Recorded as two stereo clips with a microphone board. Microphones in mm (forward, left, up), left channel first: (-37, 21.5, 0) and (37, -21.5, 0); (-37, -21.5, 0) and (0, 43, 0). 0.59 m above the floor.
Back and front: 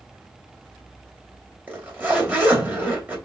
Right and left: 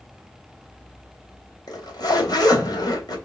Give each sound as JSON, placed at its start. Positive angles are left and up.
{"t": 1.7, "sound": "a zipper", "azimuth_deg": -100, "distance_m": 3.0}